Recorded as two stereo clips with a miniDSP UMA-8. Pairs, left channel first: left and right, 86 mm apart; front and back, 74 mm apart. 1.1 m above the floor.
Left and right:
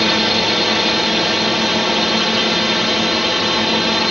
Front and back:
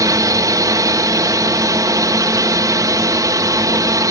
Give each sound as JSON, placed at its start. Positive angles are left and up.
{"t": 0.0, "sound": "a drone", "azimuth_deg": 180}